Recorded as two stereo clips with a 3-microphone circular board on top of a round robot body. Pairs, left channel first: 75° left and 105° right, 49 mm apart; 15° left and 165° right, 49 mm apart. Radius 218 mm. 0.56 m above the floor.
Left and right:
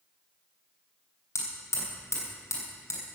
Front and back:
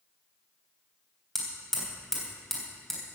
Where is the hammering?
100° left, 3 m.